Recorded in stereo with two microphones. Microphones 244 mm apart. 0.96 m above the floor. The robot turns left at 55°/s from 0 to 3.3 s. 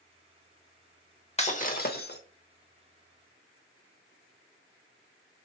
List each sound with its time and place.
1.4 s breaking glass: 140° left, 0.8 m; by 2.2 s 95° left, 0.8 m